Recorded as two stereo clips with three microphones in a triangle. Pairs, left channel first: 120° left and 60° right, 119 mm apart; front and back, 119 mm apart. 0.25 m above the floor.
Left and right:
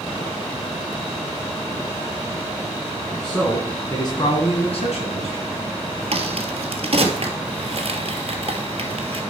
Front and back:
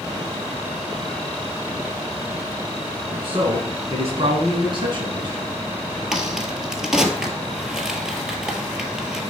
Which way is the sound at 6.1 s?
95° right.